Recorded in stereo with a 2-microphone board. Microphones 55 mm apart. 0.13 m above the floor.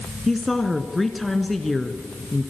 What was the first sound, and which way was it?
A woman speaking, 5° left (ahead or behind).